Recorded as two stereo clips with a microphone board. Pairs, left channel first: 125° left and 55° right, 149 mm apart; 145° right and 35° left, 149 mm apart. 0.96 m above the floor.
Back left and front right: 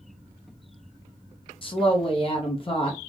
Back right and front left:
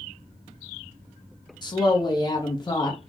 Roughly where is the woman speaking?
Behind.